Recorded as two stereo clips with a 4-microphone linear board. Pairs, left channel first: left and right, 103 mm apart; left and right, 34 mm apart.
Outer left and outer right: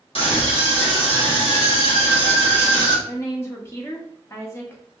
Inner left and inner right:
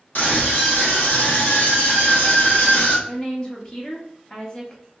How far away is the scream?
About 1.4 m.